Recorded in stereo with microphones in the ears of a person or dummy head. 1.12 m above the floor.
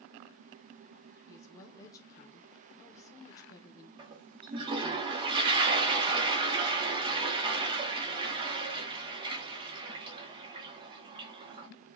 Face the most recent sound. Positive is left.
turn(degrees=-25)  # may be behind; listen again after turning